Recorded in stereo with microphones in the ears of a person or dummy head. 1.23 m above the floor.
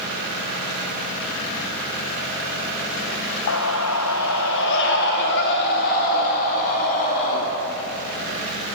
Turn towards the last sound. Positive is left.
turn(degrees=45)  # may be behind; listen again after turning